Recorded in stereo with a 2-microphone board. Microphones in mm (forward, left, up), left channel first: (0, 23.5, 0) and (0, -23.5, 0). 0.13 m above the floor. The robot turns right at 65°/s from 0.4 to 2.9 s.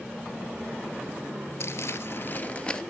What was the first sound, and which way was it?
Crumpling, 85° left.